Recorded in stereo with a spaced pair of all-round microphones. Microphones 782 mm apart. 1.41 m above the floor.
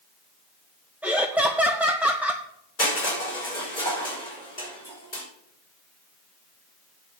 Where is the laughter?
Centre (ahead or behind), 0.6 m.